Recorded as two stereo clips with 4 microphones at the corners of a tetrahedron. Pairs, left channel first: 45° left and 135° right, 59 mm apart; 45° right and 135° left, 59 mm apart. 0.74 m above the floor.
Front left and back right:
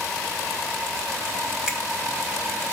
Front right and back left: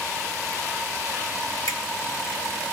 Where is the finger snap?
55° right, 1.6 m.